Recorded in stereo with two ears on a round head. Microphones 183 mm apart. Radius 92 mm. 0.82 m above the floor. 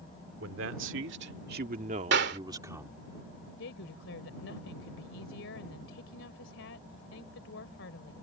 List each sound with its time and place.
0.4 s a man speaking: 75° right (ahead or behind); by 3.0 s 5° right (ahead or behind)
2.1 s a clap: 60° right (ahead or behind)
3.6 s a woman speaking: 70° left (ahead or behind)